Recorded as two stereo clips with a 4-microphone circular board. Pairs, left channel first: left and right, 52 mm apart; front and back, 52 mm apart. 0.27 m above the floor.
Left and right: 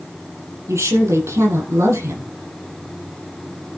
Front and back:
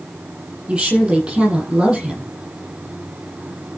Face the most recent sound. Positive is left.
turn(degrees=-110)